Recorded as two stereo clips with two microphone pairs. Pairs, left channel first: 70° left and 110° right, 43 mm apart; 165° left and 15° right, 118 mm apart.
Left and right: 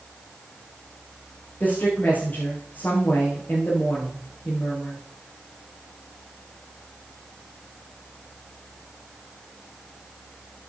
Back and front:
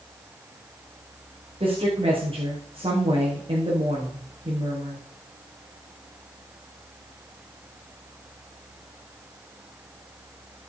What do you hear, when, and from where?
1.6 s a woman speaking: 25° left, 6.5 m